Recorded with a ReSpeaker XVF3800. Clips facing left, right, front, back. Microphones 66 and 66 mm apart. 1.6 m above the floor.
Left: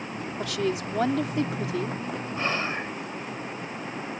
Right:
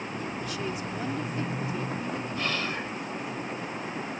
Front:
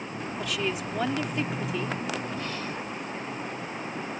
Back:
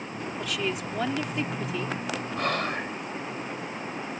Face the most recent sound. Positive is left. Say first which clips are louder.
# left 5 dB, back 5 dB
turn(degrees=155)